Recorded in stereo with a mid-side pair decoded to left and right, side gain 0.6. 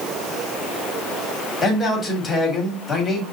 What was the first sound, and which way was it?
A man speaking, 25° left.